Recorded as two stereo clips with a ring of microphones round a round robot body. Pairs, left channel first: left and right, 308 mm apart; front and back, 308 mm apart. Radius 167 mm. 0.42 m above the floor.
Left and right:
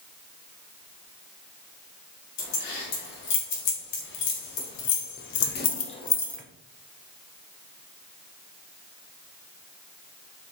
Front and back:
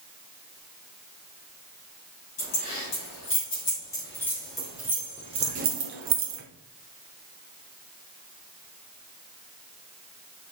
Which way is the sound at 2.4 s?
70° left.